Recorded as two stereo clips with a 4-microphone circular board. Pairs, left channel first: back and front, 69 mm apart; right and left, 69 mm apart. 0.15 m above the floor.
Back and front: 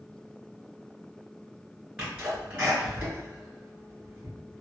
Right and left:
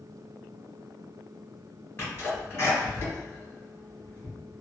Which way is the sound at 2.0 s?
65° right.